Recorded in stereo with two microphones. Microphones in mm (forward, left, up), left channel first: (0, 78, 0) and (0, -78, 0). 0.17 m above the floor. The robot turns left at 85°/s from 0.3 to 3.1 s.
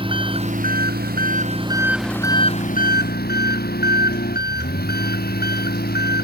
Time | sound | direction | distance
0.0 | an engine running | 35° right | ?